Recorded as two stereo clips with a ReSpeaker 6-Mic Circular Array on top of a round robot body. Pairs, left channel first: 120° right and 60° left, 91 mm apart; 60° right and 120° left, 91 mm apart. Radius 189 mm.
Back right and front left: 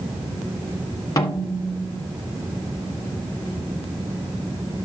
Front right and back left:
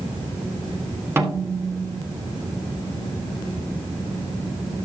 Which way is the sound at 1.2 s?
175° right.